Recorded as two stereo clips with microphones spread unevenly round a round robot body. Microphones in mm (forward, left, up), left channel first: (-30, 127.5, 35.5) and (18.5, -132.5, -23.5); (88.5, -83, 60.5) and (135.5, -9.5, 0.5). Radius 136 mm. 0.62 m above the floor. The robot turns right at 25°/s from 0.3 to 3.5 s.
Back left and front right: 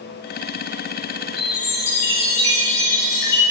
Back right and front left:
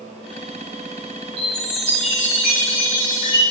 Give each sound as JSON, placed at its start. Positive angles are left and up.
{"t": 1.4, "sound": "a chime", "azimuth_deg": 100, "distance_m": 3.0}